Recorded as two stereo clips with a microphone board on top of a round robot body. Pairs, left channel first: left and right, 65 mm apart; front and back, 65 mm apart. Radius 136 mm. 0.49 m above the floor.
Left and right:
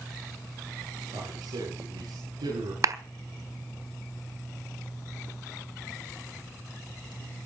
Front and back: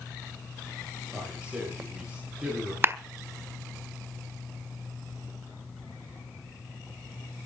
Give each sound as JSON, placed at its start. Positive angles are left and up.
{"t": 1.1, "sound": "a man speaking", "azimuth_deg": -100, "distance_m": 8.5}
{"t": 2.8, "sound": "a clap", "azimuth_deg": -125, "distance_m": 1.5}